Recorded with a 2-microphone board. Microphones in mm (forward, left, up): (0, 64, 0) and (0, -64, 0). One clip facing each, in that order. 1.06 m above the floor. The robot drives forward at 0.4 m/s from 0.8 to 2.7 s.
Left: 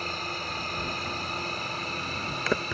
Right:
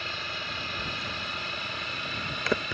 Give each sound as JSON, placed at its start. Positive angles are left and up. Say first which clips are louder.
{"t": 0.0, "sound": "a drone", "louder": "left 3 dB", "side_deg": 40}